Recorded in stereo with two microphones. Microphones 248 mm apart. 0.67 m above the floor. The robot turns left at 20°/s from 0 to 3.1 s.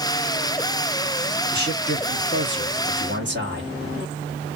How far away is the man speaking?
About 1.3 m.